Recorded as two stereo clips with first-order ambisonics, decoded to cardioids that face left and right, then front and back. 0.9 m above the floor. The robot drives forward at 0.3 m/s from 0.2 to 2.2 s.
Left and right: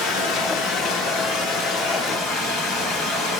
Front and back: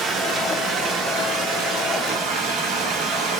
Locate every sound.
0.0 s running water: 115° left, 0.9 m; by 3.4 s 145° left, 1.2 m